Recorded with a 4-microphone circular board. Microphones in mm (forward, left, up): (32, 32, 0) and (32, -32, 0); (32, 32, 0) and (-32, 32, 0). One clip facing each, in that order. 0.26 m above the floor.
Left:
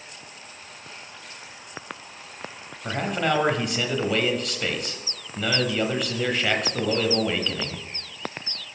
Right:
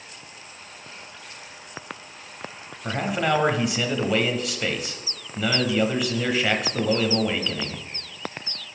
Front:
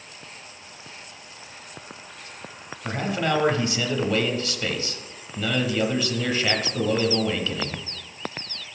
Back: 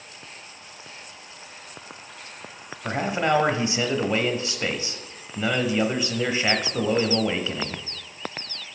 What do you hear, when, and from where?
2.8 s a man speaking: 170° right, 0.9 m